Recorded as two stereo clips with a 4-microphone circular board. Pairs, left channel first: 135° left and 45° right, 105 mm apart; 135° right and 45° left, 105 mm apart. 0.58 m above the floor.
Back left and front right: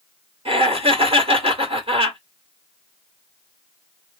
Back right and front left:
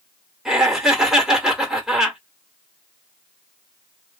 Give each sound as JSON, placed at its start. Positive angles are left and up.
{"t": 0.5, "sound": "laughter", "azimuth_deg": -40, "distance_m": 1.9}